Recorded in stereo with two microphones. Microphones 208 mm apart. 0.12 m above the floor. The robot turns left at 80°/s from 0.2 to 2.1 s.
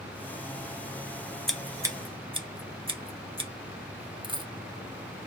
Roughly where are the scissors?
Centre.